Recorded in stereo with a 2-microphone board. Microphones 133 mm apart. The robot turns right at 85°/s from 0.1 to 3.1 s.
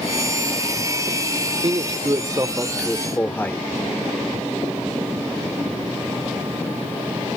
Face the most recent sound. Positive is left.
turn(degrees=15)  # may be behind; listen again after turning